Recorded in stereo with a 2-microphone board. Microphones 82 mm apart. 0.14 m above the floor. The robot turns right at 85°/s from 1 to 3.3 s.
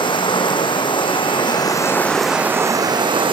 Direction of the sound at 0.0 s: 75° left.